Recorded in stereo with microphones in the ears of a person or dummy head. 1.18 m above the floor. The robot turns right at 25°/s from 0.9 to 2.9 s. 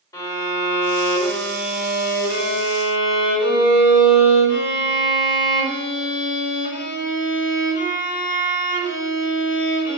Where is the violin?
25° left, 4 m; by 10.0 s 75° left, 4 m.